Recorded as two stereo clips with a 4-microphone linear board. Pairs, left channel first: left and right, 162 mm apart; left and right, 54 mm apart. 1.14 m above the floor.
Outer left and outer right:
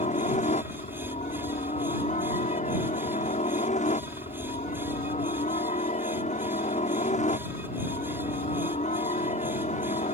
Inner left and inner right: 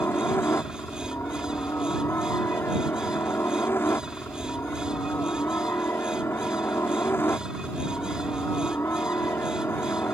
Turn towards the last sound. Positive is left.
turn(degrees=45)  # may be behind; listen again after turning